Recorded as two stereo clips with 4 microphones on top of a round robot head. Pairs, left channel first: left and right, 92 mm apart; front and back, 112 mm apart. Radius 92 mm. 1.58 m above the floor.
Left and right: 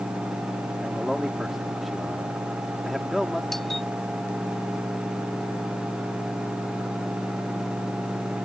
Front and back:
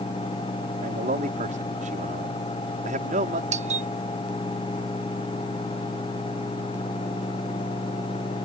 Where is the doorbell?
Straight behind.